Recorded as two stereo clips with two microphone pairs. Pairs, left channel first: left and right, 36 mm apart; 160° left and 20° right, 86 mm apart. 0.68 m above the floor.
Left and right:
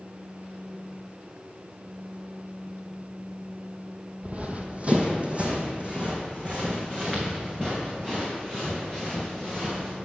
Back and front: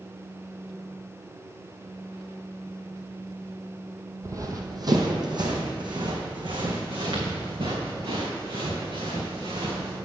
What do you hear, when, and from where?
4.2 s running footsteps: 55° right, 1.0 m; by 10.0 s 30° right, 4 m